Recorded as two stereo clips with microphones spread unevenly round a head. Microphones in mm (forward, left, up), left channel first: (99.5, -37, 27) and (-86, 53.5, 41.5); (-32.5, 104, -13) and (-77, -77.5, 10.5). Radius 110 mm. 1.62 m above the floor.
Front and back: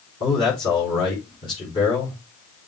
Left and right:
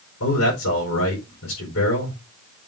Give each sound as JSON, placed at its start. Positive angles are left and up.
{"t": 0.2, "sound": "a man speaking", "azimuth_deg": 40, "distance_m": 4.5}